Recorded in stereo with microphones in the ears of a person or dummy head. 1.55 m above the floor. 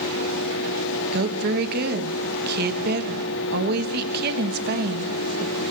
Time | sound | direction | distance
0.0 | a fan | 75° left (ahead or behind) | 2 m
1.1 | a woman speaking | 60° right (ahead or behind) | 2.5 m